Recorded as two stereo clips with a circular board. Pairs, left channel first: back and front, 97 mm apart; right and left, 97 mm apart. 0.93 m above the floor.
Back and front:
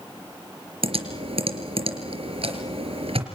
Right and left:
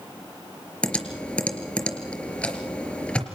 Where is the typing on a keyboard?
10° right, 3.5 m.